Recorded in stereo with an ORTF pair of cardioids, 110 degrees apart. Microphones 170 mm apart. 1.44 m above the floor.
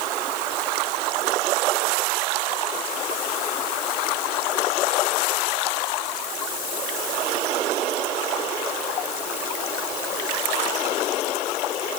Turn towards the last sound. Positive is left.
No sound to turn to.